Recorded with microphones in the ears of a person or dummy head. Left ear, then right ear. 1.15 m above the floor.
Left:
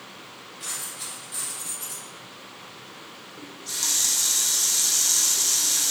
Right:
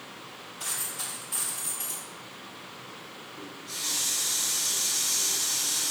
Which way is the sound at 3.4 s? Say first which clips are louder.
Left 6 dB; 80° left.